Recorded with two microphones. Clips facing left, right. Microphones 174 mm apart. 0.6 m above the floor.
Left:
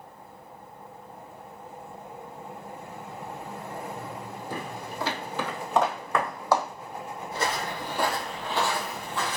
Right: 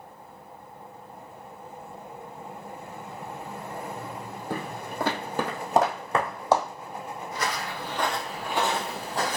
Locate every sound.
4.5 s footsteps: 65° right (ahead or behind), 1.2 m; by 6.7 s 20° right (ahead or behind), 1.4 m
7.3 s footsteps: 30° left (ahead or behind), 0.9 m; by 9.4 s 45° right (ahead or behind), 0.8 m